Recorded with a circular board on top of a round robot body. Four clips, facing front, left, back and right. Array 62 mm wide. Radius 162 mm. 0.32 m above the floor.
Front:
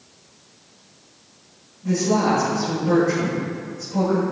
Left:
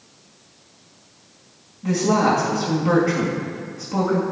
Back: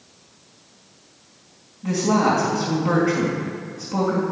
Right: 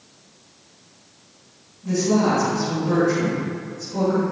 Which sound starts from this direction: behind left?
A woman speaking, at 1.8 s.